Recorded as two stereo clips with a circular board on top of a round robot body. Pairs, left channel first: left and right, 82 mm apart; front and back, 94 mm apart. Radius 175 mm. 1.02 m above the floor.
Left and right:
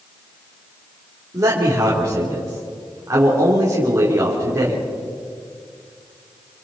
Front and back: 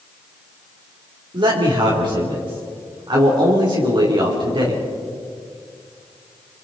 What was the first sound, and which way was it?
A man speaking, 145° right.